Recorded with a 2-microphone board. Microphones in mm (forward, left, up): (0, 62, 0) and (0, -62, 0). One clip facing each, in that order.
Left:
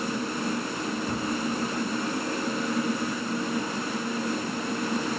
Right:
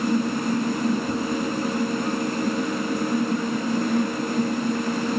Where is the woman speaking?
No woman speaking in this recording.